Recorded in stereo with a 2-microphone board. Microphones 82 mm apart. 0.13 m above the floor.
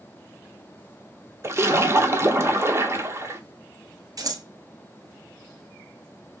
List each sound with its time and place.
1.4 s a splash: 30° right (ahead or behind), 0.6 m
4.2 s scissors: 50° right (ahead or behind), 0.9 m